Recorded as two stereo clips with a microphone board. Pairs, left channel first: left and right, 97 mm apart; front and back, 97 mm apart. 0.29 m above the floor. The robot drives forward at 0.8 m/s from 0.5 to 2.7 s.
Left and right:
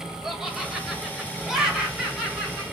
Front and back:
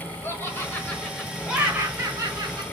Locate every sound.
0.2 s laughter: 10° right, 1.5 m; by 2.6 s 175° right, 1.8 m